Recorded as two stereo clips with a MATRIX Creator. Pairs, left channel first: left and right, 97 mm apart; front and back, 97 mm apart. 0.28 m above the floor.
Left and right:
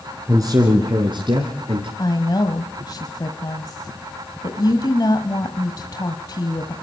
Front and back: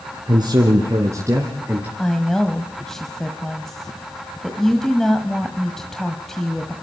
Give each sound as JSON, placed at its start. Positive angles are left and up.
{"t": 0.3, "sound": "a man speaking", "azimuth_deg": -145, "distance_m": 3.5}
{"t": 2.0, "sound": "a woman speaking", "azimuth_deg": 85, "distance_m": 1.4}